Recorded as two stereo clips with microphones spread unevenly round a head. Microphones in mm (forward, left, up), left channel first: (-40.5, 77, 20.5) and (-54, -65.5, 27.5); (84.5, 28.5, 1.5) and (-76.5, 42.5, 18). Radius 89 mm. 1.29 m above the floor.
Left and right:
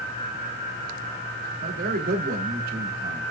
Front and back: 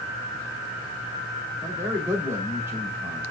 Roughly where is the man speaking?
Right.